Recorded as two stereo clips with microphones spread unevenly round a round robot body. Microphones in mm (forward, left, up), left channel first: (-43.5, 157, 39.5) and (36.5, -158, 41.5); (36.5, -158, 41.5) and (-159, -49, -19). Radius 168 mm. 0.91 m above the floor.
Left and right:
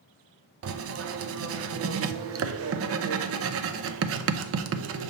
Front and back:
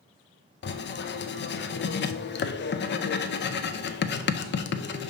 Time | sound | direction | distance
0.6 | writing | 65° right | 0.7 m